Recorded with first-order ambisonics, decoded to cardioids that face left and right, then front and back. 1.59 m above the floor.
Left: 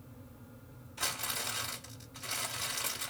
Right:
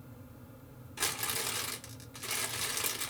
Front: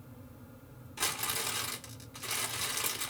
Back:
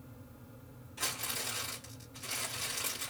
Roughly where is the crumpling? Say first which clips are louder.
Right 1 dB, front 3 dB; ahead right.